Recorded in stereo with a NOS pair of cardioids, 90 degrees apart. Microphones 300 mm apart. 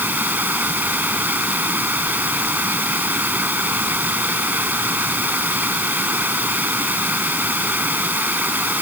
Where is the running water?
5° right.